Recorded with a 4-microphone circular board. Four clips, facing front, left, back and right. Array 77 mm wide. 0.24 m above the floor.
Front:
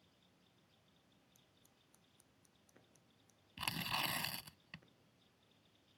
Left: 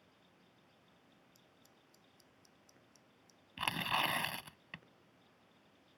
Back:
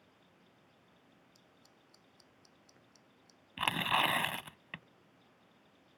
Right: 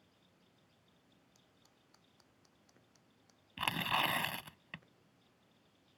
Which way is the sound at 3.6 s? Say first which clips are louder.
Right 1 dB, back 11 dB; 175° right.